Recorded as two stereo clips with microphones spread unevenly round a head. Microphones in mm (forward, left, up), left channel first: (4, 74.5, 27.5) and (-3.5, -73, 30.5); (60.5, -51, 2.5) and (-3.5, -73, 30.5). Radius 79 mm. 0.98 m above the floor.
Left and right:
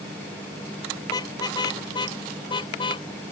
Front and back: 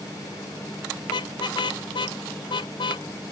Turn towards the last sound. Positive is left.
turn(degrees=25)